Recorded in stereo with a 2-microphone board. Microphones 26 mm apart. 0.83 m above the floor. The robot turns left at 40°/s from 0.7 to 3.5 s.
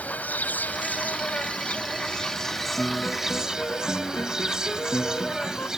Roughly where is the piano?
Behind left.